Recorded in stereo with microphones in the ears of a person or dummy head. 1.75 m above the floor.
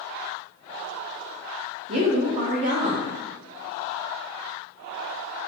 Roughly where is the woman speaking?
Right.